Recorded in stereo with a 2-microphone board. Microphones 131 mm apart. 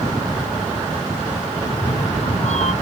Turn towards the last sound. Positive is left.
turn(degrees=55)  # may be behind; listen again after turning